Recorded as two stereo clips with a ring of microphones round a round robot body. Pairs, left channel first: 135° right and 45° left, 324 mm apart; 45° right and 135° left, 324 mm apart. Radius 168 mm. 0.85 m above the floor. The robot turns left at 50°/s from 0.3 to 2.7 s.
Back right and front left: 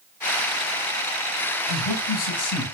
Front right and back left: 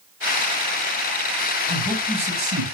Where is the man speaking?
125° right, 6 m; by 2.6 s 175° right, 6 m.